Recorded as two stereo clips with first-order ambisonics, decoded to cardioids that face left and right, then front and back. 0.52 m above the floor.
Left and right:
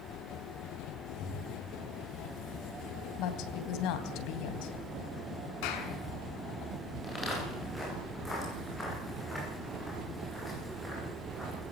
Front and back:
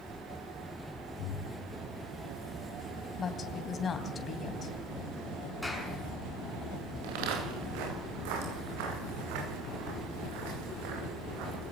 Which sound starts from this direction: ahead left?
Breathing, at 1.2 s.